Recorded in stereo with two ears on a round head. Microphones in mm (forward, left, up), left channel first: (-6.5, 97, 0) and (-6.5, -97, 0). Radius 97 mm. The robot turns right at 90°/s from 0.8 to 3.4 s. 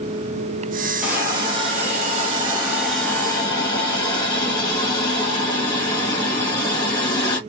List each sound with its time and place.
1.0 s a hiss: 5° right (ahead or behind), 1.0 m; by 7.4 s 20° left (ahead or behind), 1.0 m